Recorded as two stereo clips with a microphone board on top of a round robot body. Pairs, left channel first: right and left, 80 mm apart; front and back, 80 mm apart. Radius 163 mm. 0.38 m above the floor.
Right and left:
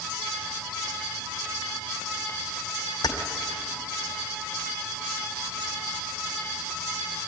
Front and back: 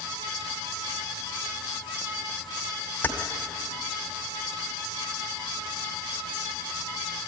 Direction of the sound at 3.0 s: 65° right.